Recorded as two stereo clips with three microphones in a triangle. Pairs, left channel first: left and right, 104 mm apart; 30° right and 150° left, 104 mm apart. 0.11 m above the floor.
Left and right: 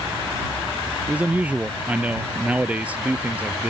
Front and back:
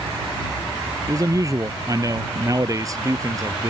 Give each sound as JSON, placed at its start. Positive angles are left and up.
{"t": 1.1, "sound": "a man speaking", "azimuth_deg": -165}